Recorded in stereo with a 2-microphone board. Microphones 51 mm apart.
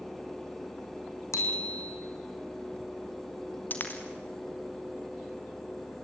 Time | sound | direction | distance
1.3 | a bicycle bell | 75° left (ahead or behind) | 4 m
3.7 | a dropped coin | 35° left (ahead or behind) | 4 m